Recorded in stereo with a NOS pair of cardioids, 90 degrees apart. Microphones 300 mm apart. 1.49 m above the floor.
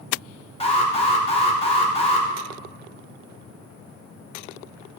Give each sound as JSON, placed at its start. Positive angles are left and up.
{"t": 0.6, "sound": "an alarm", "azimuth_deg": 20, "distance_m": 2.0}